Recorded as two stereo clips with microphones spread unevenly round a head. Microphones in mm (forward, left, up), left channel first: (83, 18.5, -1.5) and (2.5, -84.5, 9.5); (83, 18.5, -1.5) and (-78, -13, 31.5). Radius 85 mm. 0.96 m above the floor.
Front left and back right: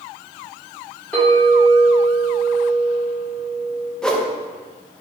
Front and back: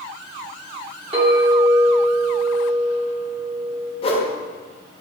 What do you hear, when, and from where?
1.1 s a clink: 135° left, 1.5 m
4.0 s a whoosh: 30° right, 0.6 m